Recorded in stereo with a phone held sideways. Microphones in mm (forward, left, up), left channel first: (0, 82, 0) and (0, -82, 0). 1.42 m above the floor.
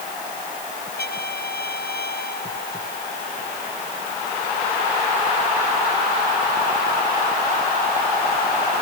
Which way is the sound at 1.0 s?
80° left.